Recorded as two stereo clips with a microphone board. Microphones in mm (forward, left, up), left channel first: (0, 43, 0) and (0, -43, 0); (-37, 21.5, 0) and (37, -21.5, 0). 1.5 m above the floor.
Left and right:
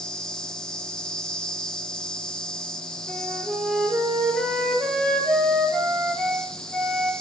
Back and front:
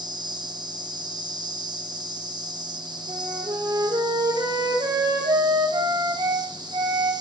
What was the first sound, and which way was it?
An insect, 10° left.